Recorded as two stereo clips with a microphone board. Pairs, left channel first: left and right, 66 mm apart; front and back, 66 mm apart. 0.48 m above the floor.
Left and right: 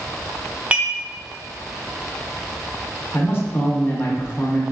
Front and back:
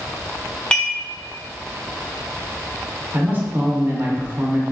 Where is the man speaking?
130° left, 1.0 m.